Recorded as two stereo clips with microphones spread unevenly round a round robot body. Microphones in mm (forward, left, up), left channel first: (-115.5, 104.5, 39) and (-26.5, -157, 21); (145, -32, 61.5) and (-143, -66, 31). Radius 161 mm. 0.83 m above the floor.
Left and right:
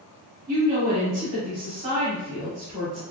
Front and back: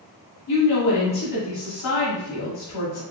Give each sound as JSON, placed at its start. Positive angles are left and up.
{"t": 0.5, "sound": "a woman speaking", "azimuth_deg": -5, "distance_m": 2.0}